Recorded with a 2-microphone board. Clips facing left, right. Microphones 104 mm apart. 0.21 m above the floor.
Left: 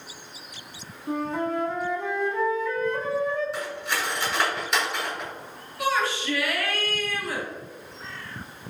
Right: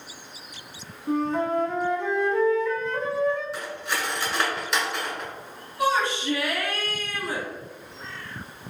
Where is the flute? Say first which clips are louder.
Right 3 dB; 5° left (ahead or behind), 0.6 m.